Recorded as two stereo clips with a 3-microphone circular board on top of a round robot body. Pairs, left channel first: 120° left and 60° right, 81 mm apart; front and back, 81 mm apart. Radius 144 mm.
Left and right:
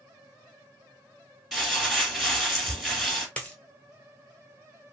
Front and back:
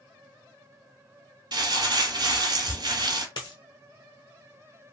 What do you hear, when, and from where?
1.5 s crumpling: 150° right, 1.2 m
3.4 s a dropped coin: 45° left, 0.8 m